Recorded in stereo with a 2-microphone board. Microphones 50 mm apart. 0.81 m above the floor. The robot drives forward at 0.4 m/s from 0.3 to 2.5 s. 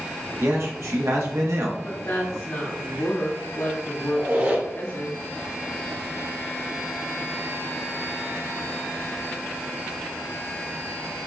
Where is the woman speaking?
65° left (ahead or behind), 1.6 m.